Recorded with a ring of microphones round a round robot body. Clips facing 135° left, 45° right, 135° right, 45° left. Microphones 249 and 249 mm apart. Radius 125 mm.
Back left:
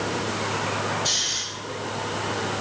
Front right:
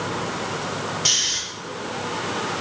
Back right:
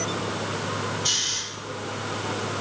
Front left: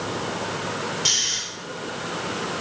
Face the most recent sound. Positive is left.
turn(degrees=-5)